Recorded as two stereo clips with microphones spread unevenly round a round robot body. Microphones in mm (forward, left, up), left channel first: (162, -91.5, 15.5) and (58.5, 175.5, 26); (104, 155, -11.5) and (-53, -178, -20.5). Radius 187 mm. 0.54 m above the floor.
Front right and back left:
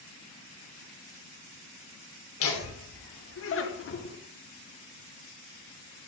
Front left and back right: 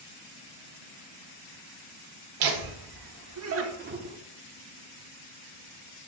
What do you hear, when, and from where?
2.4 s laughter: 105° right, 1.5 m; by 4.2 s 50° right, 1.0 m